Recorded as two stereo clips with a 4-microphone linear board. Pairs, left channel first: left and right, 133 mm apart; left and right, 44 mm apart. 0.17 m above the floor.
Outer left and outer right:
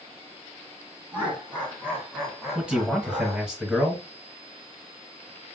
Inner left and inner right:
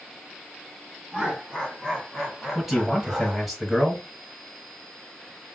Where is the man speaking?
5° right (ahead or behind), 2 m.